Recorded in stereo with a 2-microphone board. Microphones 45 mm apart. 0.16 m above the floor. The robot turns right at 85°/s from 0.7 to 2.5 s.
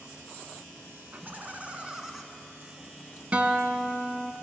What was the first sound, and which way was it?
Laughter, 95° right.